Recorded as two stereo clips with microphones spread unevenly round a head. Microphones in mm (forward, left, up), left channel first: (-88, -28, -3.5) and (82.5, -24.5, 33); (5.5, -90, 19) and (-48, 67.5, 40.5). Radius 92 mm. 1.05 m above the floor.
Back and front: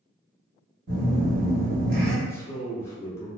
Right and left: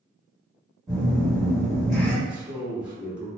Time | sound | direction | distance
0.9 | a phone buzzing | 25° left | 1.4 m
2.2 | a man speaking | 160° right | 0.7 m